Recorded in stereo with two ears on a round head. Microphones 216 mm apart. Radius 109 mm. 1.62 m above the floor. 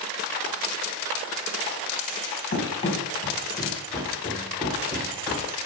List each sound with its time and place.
2.5 s running footsteps: 30° left (ahead or behind), 3 m; by 5.5 s 10° right (ahead or behind), 2.0 m